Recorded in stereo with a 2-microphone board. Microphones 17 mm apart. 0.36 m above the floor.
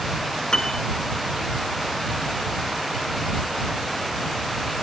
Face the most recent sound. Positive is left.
turn(degrees=50)  # may be behind; listen again after turning